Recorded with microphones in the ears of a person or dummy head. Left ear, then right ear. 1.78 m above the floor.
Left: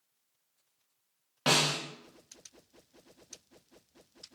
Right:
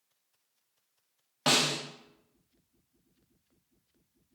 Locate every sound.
1.5 s a snare drum: 5° right (ahead or behind), 0.6 m